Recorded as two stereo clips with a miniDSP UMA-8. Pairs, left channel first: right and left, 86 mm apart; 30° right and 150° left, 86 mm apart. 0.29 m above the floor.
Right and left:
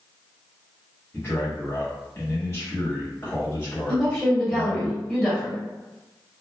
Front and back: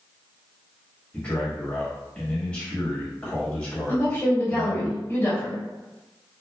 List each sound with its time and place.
1.1 s a man speaking: 95° right, 1.0 m
3.9 s a woman speaking: 30° right, 1.4 m